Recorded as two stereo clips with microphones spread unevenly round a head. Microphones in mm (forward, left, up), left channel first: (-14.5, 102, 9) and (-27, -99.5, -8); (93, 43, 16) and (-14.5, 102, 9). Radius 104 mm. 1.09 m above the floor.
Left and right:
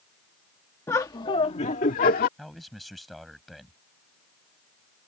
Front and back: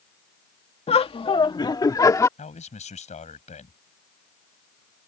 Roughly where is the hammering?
No hammering in this recording.